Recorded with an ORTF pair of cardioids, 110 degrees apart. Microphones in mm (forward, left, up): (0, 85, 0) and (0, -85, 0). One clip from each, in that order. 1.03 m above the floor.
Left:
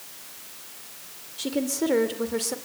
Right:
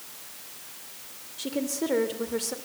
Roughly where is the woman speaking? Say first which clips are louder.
Left 3 dB; ahead.